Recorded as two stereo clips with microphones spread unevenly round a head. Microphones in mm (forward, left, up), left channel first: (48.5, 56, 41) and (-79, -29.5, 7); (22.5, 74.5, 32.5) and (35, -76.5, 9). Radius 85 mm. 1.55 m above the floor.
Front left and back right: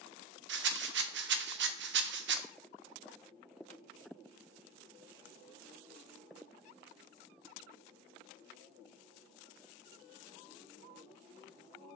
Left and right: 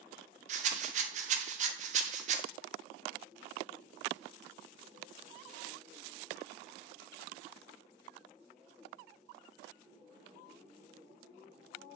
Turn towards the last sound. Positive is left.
turn(degrees=-135)